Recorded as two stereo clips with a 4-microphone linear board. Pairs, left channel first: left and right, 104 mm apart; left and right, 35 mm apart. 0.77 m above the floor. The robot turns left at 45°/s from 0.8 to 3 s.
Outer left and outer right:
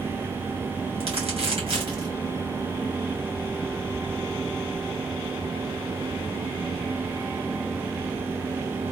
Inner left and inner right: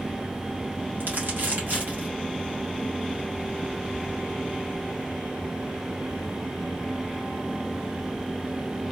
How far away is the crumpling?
About 2 m.